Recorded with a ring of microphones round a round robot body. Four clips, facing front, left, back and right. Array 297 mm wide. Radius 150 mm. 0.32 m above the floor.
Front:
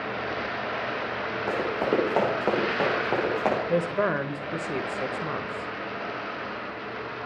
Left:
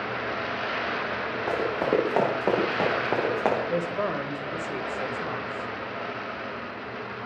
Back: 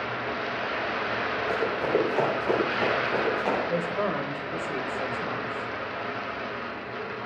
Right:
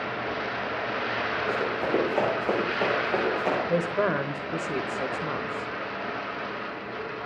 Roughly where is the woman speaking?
Ahead right.